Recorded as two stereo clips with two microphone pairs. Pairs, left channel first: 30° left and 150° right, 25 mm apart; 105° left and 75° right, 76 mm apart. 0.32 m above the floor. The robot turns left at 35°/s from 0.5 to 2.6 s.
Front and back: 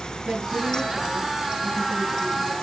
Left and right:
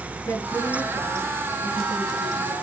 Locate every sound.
0.2 s a woman speaking: 160° left, 5 m; by 2.6 s 85° left, 5 m